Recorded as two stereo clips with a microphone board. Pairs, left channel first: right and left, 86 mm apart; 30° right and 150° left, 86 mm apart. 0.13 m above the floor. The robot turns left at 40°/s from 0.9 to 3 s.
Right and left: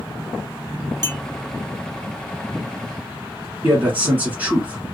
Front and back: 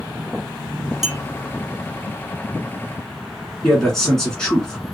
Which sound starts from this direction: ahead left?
A man speaking, at 3.6 s.